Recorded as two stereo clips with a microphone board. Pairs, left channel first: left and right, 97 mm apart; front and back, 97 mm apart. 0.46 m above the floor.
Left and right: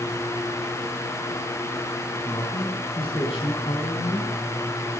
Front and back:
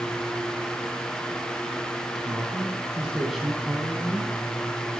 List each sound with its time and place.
2.2 s a man speaking: 110° left, 4.5 m; by 4.3 s 65° left, 3 m